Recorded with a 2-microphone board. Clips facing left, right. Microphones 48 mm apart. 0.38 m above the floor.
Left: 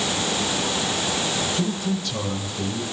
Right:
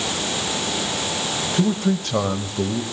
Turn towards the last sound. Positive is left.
turn(degrees=-55)  # may be behind; listen again after turning